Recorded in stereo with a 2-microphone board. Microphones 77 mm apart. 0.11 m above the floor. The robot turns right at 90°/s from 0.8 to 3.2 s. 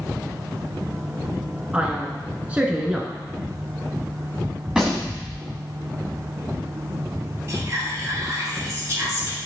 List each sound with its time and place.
1.7 s a man speaking: 15° right (ahead or behind), 1.2 m; by 3.1 s 5° right (ahead or behind), 1.2 m
4.7 s a gunshot: 5° right (ahead or behind), 2 m
7.5 s whispering: 35° right (ahead or behind), 2.5 m